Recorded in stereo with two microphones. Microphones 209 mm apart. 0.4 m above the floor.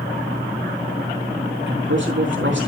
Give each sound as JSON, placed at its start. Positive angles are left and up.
{"t": 1.7, "sound": "a man speaking", "side_deg": -65, "distance_m": 4.0}